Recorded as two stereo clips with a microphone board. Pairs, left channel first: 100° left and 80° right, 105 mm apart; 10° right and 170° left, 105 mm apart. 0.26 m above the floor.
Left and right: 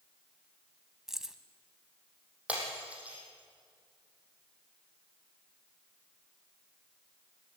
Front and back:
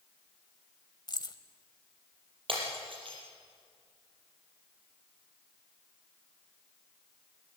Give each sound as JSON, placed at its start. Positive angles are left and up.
{"t": 1.1, "sound": "keys jangling", "azimuth_deg": 5, "distance_m": 1.0}
{"t": 2.5, "sound": "breaking glass", "azimuth_deg": -155, "distance_m": 5.5}